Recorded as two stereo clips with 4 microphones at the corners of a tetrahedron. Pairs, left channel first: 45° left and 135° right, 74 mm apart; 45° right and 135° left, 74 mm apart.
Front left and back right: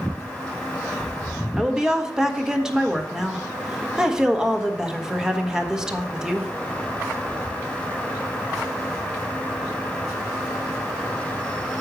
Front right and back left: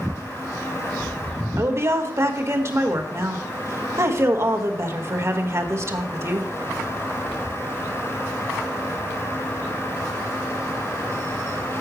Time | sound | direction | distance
1.6 | a woman speaking | 150° left | 1.4 m